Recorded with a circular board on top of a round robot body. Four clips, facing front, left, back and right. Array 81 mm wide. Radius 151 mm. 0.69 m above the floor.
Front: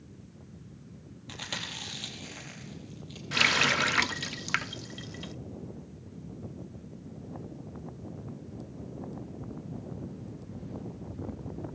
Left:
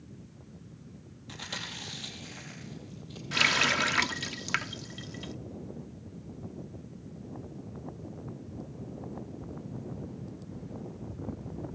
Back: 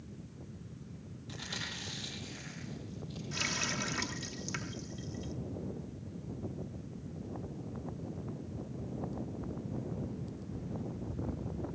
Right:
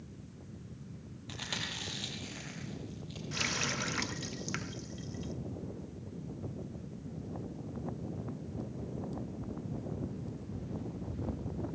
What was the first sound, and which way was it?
Chewing, 25° right.